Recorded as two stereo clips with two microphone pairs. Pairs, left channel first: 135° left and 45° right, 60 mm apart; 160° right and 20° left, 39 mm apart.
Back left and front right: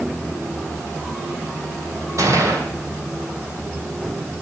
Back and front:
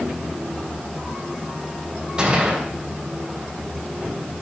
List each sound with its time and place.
2.2 s a gunshot: 40° right, 2.5 m